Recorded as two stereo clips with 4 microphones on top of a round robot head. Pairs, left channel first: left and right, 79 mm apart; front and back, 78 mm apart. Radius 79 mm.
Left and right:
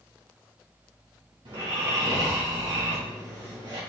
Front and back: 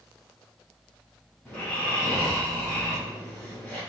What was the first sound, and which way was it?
Snoring, 80° right.